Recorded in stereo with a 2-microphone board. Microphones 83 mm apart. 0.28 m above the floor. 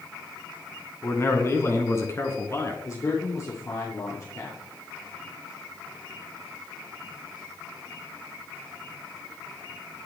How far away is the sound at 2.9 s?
About 6.5 m.